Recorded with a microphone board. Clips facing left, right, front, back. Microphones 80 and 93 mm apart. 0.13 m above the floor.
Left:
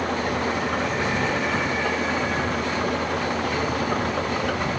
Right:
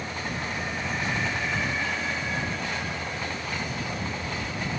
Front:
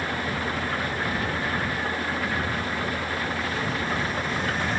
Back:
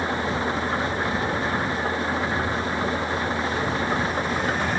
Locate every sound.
0.0 s an engine running: 110° left